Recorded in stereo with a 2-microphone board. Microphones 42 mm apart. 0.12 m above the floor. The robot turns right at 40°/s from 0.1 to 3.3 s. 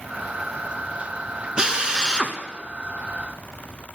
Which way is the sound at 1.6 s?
20° right (ahead or behind).